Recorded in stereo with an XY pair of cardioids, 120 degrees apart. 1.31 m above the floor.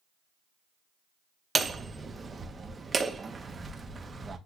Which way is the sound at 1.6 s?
25° right.